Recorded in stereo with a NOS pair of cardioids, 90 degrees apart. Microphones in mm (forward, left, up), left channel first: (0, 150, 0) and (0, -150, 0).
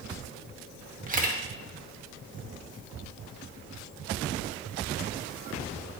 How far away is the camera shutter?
About 1.2 m.